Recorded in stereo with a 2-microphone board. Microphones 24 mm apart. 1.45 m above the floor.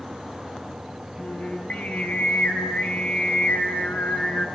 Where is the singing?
70° left (ahead or behind), 3.5 m.